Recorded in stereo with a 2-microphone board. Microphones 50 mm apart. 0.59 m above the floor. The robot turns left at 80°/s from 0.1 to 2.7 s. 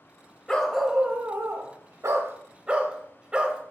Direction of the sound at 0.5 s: 20° left.